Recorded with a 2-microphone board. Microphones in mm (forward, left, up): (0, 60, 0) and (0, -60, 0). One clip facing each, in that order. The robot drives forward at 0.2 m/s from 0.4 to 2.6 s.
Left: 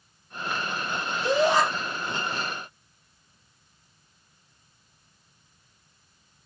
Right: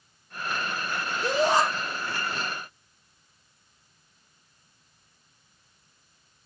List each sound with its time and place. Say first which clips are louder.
1.2 s a shout: left 1 dB; 45° right (ahead or behind), 1.4 m